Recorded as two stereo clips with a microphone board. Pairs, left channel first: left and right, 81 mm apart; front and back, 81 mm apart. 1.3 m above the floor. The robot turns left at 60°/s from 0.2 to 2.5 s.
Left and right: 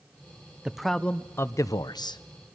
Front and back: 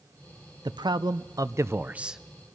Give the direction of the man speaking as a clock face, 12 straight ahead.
6 o'clock.